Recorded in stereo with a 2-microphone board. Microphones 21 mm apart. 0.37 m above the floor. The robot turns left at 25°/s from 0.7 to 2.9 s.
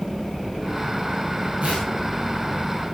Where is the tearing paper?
80° right, 10 m; by 1.9 s 75° right (ahead or behind), 10 m.